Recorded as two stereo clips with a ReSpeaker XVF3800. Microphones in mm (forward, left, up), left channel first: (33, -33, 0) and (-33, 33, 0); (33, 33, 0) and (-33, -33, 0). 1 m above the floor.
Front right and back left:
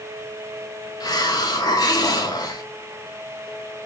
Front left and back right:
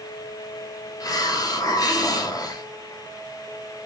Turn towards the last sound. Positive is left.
turn(degrees=0)